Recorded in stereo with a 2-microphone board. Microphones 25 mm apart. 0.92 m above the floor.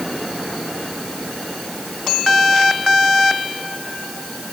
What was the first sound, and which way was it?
Only background noise.